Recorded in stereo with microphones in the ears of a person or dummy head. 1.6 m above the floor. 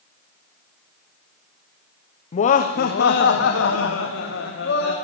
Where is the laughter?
40° left (ahead or behind), 0.7 m; by 4.9 s 85° left, 2.0 m.